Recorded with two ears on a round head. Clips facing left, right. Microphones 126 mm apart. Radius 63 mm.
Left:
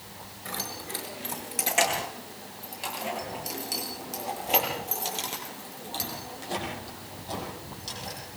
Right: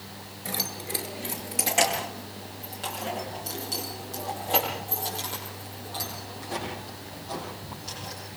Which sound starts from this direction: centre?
Keys jangling, at 0.5 s.